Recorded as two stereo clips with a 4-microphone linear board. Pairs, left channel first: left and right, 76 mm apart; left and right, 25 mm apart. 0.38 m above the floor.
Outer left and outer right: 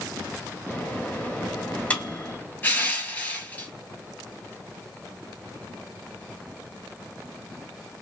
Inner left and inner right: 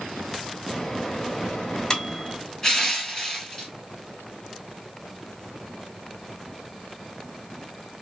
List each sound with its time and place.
0.7 s a microwave: 20° left (ahead or behind), 1.4 m
2.6 s crushing: 20° left (ahead or behind), 2.5 m